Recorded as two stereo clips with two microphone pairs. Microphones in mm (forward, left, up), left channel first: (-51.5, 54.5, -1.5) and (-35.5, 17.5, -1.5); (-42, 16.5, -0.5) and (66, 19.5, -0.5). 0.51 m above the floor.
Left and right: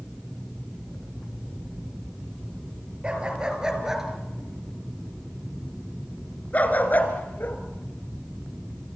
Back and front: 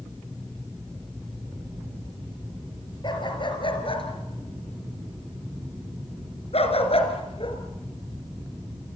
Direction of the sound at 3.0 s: 135° right.